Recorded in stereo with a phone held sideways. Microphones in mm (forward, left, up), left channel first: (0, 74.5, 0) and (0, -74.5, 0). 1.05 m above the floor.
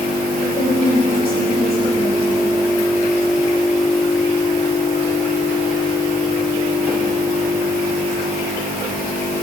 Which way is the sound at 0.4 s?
75° left (ahead or behind).